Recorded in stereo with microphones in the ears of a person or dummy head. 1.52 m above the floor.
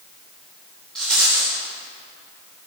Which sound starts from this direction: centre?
A rattle, at 0.9 s.